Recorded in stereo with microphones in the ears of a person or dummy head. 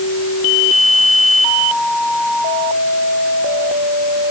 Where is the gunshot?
I don't hear a gunshot.